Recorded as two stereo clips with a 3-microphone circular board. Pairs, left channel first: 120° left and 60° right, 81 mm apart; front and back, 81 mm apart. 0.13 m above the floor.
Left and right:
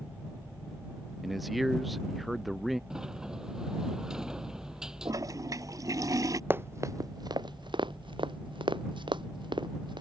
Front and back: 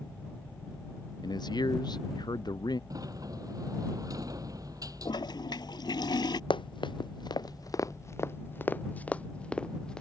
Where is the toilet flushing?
20° right.